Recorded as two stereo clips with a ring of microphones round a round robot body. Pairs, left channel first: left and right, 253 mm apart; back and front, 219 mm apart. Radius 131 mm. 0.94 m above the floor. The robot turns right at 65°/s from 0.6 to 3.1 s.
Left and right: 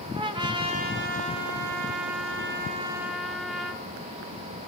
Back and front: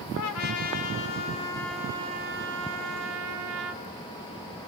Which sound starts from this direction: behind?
A trumpet, at 0.1 s.